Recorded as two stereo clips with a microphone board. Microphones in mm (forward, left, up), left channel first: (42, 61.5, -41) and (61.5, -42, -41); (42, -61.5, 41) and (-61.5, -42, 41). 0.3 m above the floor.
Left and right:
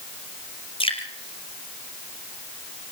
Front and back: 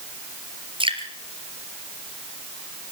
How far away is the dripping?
About 3.5 m.